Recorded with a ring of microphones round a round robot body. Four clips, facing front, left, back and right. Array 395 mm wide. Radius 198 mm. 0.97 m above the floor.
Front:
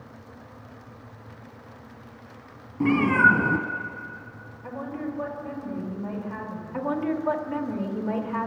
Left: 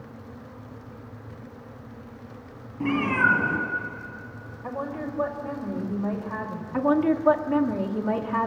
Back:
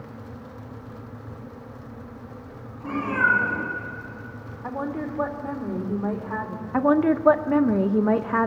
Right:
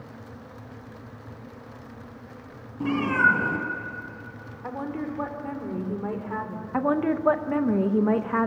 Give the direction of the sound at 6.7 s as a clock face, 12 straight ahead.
5 o'clock.